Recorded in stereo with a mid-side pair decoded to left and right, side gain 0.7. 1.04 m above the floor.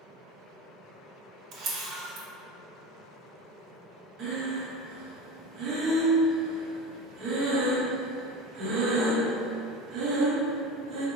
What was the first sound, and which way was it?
A camera shutter, 60° right.